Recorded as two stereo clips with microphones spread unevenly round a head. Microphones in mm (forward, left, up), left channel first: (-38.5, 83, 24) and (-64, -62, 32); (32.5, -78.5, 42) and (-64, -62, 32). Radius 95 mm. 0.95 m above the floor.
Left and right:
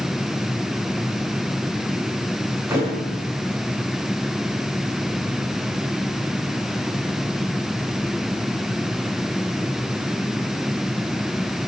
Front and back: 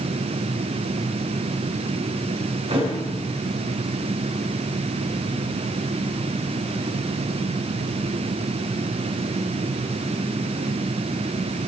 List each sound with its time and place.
2.7 s a thud: 170° right, 5.5 m